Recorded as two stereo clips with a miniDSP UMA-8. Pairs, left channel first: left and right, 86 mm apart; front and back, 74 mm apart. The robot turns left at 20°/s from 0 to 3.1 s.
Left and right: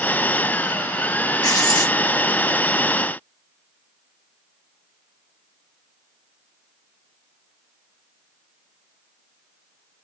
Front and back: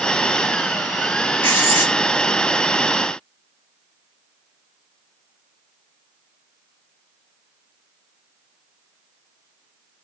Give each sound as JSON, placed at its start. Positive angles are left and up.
{"t": 1.4, "sound": "writing", "azimuth_deg": 60, "distance_m": 1.3}